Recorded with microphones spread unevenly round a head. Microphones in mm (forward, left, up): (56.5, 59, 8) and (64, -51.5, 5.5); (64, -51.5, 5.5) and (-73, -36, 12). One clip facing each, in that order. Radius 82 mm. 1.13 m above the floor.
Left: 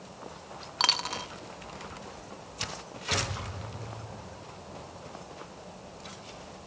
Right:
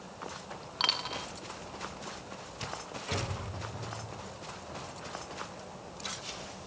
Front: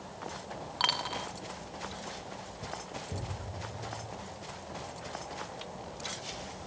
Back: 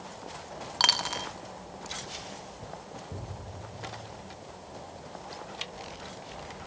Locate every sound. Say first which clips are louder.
0.8 s a dropped coin: left 4 dB, back 3 dB; 140° left, 0.6 m